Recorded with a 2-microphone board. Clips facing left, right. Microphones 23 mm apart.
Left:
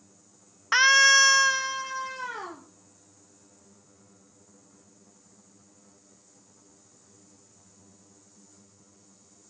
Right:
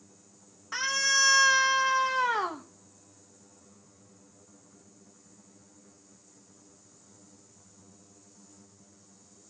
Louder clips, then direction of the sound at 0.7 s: Left 9 dB; 50° left (ahead or behind).